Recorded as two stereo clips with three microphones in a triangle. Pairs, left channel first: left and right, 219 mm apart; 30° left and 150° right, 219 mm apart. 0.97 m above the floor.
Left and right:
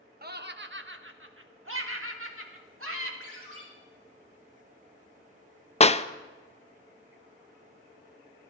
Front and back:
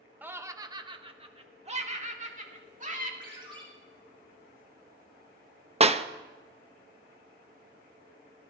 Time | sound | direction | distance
0.2 | laughter | 70° right | 0.9 m
3.2 | a ringtone | 80° right | 6.5 m
5.8 | a clap | 155° left | 0.5 m